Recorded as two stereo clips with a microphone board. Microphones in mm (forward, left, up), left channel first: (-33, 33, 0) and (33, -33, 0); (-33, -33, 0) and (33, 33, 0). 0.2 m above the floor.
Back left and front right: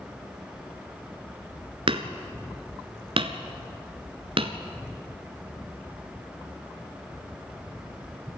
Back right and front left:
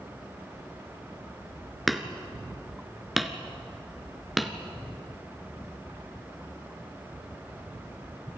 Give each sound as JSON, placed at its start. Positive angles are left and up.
{"t": 1.9, "sound": "hammering", "azimuth_deg": -45, "distance_m": 1.1}